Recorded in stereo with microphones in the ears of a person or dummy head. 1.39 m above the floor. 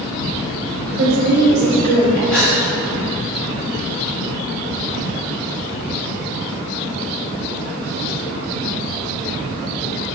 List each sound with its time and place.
0.9 s a woman speaking: 55° right (ahead or behind), 2.5 m; by 2.2 s 70° right (ahead or behind), 2.5 m
2.3 s a gasp: 15° right (ahead or behind), 1.0 m